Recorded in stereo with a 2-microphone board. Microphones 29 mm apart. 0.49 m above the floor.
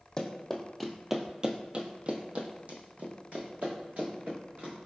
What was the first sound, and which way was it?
Running footsteps, 20° left (ahead or behind).